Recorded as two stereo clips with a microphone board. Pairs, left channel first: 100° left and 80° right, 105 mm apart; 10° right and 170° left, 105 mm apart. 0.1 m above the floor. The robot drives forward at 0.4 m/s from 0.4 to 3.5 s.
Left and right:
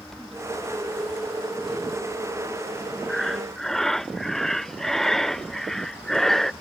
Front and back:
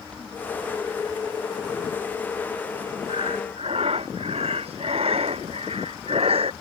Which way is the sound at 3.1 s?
170° right.